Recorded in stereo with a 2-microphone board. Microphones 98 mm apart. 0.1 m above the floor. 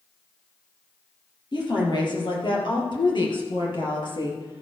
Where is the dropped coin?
No dropped coin in this recording.